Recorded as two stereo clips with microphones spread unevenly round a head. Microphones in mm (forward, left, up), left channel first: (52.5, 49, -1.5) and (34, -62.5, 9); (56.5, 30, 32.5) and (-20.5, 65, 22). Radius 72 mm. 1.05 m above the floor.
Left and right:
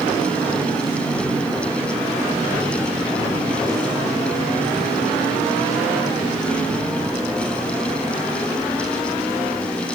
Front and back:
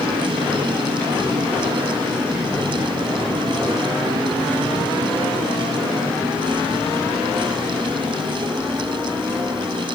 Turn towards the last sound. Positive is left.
No sound to turn to.